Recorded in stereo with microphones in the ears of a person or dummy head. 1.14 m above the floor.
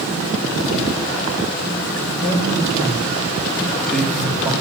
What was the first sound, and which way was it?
A man speaking, 45° left (ahead or behind).